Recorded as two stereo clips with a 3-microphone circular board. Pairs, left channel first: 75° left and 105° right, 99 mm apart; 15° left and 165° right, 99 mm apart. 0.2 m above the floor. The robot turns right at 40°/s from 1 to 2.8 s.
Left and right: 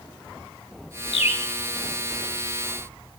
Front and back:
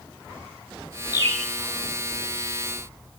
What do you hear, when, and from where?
1.1 s a bird: 65° left, 1.1 m; by 1.5 s 80° left, 1.1 m